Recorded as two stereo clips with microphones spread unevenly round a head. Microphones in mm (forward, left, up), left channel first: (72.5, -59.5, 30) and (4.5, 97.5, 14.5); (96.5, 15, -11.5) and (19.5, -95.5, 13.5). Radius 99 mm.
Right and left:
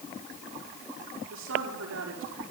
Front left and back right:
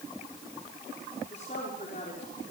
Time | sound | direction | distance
1.3 | a woman speaking | 115° left | 5.5 m